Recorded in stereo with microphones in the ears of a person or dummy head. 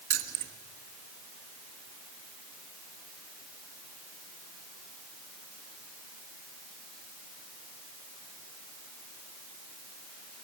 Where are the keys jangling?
50° right (ahead or behind), 1.4 m.